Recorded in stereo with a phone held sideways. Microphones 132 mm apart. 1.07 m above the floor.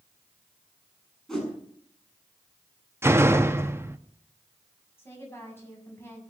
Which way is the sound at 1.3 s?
5° left (ahead or behind).